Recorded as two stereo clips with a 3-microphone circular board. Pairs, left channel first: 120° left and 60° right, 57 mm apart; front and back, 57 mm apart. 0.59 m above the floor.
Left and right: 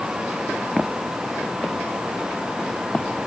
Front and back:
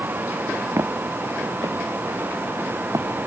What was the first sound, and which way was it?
Footsteps, 145° right.